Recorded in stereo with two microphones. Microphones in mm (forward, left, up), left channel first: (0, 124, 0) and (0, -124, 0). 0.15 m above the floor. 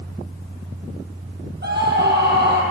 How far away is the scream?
About 6 m.